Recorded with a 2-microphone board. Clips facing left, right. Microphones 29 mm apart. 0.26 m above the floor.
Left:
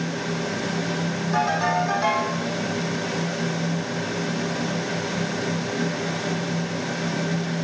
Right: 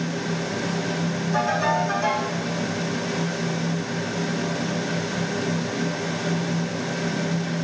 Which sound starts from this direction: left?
A ringtone, at 1.3 s.